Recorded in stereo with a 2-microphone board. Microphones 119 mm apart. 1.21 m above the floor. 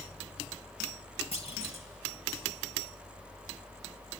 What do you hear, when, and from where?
1.3 s a clunk: 55° left (ahead or behind), 1.8 m